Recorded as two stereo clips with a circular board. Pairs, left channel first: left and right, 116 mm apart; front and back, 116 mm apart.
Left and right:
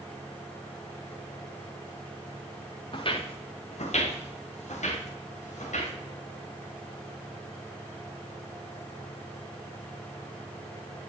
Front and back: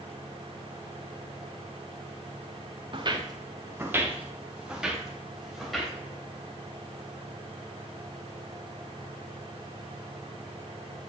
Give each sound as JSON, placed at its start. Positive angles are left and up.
{"t": 2.9, "sound": "footsteps", "azimuth_deg": 135, "distance_m": 1.0}